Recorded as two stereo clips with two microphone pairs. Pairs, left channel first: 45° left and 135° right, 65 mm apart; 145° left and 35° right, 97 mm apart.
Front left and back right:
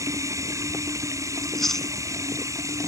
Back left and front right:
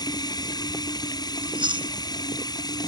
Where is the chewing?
40° right.